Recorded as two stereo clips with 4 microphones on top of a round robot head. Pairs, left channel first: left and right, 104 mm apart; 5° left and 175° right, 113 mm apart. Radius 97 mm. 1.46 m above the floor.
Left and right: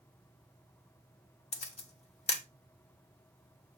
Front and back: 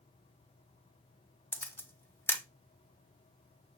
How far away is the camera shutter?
About 1.3 m.